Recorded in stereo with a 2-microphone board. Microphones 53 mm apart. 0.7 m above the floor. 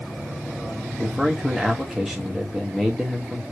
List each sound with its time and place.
1.0 s a man speaking: centre (ahead or behind), 0.9 m